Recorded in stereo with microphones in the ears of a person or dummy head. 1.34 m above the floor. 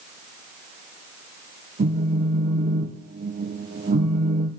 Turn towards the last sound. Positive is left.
turn(degrees=-40)  # may be behind; listen again after turning